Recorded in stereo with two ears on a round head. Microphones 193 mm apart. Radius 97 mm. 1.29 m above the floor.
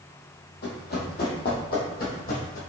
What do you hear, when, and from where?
0.6 s running footsteps: 50° left (ahead or behind), 1.8 m; by 2.6 s 40° left (ahead or behind), 2 m